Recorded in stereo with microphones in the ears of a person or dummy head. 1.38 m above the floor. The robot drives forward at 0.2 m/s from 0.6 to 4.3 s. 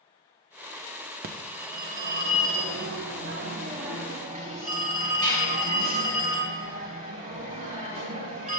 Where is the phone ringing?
50° right (ahead or behind), 0.6 m; by 8.6 s 35° right (ahead or behind), 0.7 m.